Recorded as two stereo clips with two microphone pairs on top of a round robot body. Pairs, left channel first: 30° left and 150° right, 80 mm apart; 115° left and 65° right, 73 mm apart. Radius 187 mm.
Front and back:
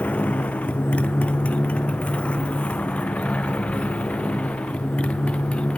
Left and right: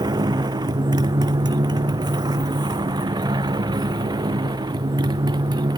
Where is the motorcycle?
40° right; by 5.8 s 45° right.